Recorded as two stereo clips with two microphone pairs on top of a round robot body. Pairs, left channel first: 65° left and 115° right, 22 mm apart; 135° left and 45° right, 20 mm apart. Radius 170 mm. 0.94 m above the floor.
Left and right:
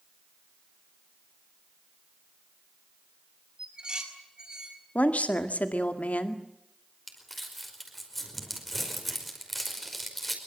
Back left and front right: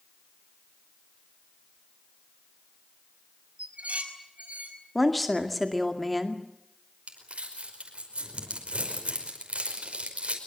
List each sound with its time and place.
3.6 s dishes clattering: 50° right, 5 m
5.0 s a woman speaking: 45° left, 2 m
7.1 s crumpling: 20° right, 5 m